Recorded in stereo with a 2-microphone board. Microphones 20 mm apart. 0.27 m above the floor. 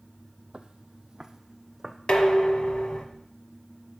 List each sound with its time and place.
0.5 s footsteps: 55° right (ahead or behind), 0.6 m; by 2.0 s 15° right (ahead or behind), 1.1 m
2.1 s dishes clattering: 60° left (ahead or behind), 1.3 m